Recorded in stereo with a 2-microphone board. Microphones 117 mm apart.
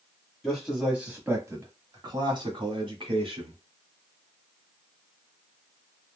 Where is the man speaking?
Centre (ahead or behind), 1.2 m; by 3.6 s 50° right (ahead or behind), 1.7 m.